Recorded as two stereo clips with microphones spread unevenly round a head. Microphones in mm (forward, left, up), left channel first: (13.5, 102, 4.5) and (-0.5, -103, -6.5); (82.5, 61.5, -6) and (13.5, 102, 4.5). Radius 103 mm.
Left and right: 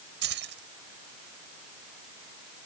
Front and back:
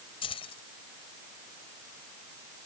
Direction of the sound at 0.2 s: 55° right.